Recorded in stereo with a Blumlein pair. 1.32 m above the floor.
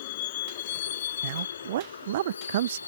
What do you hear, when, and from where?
0.0 s a vehicle: 55° left; by 2.9 s 80° left
1.2 s a man speaking: 55° right